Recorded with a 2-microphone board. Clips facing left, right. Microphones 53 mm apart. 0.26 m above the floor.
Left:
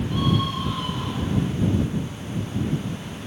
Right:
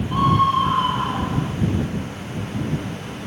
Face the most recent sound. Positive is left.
turn(degrees=-40)  # may be behind; listen again after turning